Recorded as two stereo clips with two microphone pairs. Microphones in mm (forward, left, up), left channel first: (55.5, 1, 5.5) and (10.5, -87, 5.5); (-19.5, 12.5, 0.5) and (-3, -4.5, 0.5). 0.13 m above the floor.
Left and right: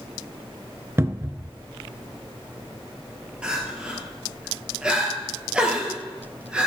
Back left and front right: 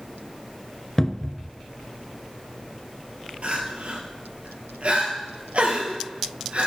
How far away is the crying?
About 2.5 m.